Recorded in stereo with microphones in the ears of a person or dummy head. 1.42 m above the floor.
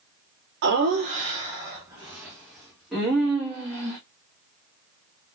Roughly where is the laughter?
Right.